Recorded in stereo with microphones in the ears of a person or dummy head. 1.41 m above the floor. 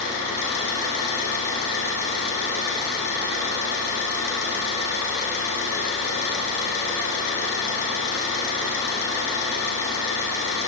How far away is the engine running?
About 1.4 m.